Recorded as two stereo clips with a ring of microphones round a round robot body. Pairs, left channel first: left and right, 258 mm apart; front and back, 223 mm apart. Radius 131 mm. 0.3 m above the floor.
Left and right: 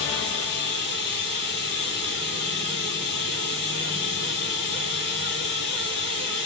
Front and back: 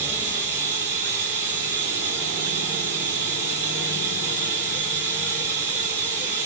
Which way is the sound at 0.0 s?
140° left.